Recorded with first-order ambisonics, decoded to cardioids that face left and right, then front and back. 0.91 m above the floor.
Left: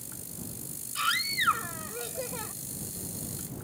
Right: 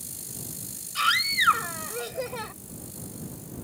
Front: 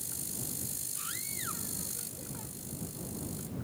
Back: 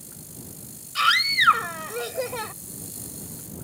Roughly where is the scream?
Behind.